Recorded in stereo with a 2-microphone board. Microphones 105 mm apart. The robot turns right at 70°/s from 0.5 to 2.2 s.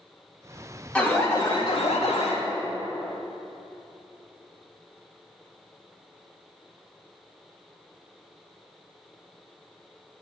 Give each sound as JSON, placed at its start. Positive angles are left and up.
{"t": 0.9, "sound": "an alarm", "azimuth_deg": 10, "distance_m": 2.0}